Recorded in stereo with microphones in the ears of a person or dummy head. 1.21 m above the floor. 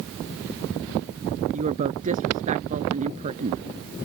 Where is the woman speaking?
40° right (ahead or behind).